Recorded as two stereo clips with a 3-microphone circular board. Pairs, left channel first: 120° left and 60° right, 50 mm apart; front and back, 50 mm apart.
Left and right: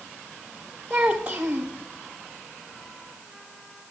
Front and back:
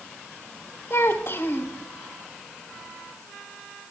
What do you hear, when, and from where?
0.9 s a child speaking: 5° right, 1.1 m